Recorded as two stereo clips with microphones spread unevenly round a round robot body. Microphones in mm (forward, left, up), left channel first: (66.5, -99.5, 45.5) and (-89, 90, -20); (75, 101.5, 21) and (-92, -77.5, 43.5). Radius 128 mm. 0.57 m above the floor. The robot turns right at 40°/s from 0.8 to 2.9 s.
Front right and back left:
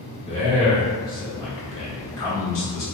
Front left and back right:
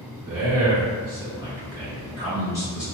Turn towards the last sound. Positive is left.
turn(degrees=-40)